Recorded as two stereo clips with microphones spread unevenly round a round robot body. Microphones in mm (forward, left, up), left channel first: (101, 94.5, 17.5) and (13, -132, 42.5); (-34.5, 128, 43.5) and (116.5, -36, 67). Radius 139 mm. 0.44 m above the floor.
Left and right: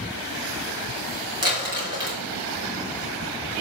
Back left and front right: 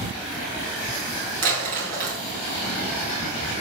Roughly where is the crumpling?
Ahead right.